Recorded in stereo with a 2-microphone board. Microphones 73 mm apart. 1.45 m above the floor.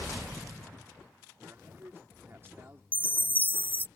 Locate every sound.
1.4 s a man speaking: 35° right (ahead or behind)
2.9 s a chime: 25° left (ahead or behind)